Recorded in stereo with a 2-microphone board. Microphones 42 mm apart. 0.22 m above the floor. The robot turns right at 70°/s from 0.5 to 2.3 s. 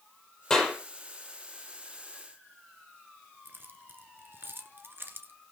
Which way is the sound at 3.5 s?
55° right (ahead or behind).